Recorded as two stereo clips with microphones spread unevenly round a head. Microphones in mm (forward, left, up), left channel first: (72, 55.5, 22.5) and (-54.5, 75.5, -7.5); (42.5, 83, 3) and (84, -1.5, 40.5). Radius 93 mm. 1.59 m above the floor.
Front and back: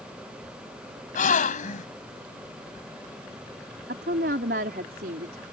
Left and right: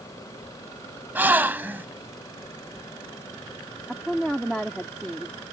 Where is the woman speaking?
150° right.